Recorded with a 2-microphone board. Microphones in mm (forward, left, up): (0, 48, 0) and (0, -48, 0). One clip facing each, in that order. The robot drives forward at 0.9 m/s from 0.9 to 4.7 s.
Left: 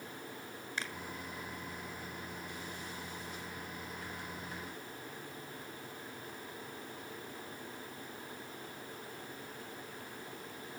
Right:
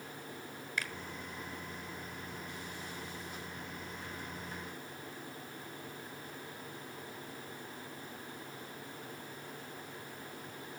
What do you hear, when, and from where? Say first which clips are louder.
0.8 s a finger snap: right 1 dB; 30° left (ahead or behind), 1.3 m